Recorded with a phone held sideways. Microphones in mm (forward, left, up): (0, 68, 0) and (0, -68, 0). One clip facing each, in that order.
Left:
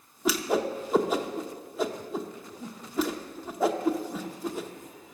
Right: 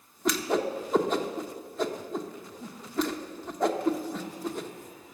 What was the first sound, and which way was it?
A whoosh, 5° left (ahead or behind).